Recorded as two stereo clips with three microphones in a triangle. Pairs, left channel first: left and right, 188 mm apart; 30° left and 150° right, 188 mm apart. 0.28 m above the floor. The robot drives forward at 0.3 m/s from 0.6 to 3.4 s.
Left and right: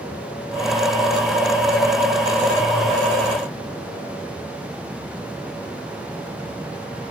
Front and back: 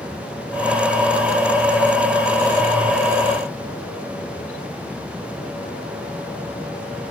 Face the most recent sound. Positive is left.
No sound to turn to.